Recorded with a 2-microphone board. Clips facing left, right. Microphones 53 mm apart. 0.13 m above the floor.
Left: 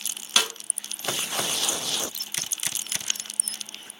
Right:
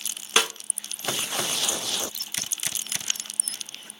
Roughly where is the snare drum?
Right.